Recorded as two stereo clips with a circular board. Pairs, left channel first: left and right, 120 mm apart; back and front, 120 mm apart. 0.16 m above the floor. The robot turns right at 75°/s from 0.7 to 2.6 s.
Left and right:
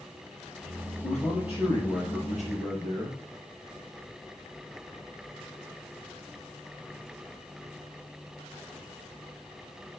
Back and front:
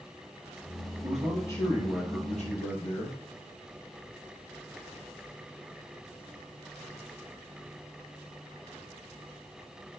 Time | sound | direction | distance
1.0 | a man speaking | 80° left | 4.5 m